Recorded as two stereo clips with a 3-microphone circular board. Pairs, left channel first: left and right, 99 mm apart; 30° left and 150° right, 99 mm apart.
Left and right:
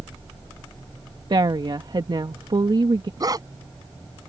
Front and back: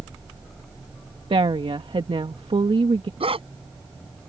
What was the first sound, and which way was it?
A woman speaking, 130° right.